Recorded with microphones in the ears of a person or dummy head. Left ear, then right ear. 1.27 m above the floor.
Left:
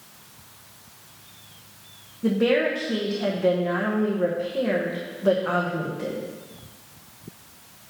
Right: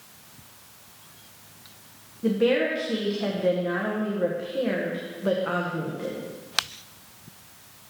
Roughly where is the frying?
No frying in this recording.